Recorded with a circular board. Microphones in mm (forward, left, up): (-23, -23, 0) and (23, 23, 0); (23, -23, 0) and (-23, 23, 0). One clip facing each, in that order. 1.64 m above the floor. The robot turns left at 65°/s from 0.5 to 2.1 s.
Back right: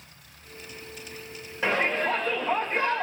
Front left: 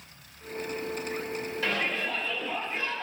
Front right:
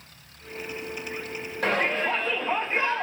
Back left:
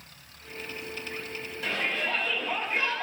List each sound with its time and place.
1.6 s a shout: 80° right, 3 m; by 3.0 s 110° right, 3 m